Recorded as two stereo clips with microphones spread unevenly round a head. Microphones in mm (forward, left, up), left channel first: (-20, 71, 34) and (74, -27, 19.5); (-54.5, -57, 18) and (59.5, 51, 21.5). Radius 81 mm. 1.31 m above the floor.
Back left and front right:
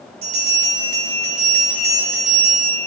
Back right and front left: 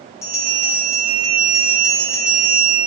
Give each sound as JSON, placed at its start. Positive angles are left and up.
{"t": 0.2, "sound": "a bell", "azimuth_deg": -65, "distance_m": 2.5}